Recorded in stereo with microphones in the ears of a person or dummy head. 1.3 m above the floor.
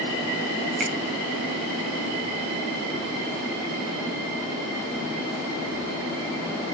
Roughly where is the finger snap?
Right.